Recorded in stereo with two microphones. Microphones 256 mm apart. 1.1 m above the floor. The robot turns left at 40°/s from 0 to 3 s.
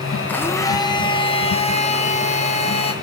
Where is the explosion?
I don't hear an explosion.